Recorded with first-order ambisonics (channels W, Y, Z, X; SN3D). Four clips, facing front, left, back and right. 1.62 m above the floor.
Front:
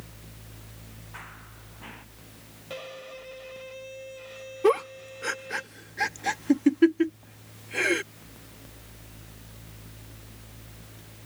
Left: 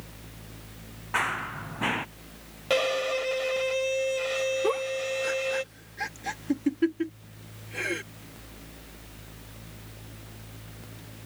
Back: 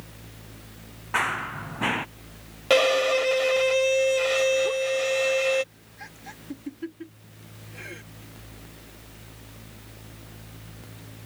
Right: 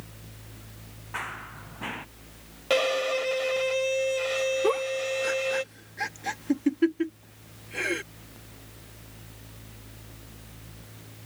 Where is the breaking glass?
No breaking glass in this recording.